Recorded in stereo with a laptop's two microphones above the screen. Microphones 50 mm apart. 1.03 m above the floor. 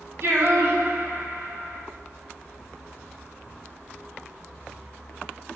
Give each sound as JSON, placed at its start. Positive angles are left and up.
{"t": 0.2, "sound": "singing", "side_deg": -55, "distance_m": 0.5}